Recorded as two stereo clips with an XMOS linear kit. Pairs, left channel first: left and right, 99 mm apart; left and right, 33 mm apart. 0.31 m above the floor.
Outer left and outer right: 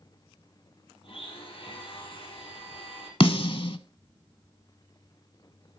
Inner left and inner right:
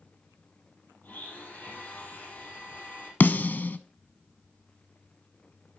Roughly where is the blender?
Left.